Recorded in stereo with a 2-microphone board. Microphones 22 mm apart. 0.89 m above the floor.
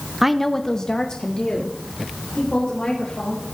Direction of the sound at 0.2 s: 15° right (ahead or behind).